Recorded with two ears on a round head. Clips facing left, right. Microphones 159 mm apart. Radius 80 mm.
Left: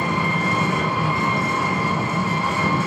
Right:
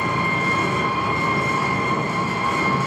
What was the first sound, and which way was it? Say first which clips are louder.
An engine running: left 1 dB; 55° left (ahead or behind).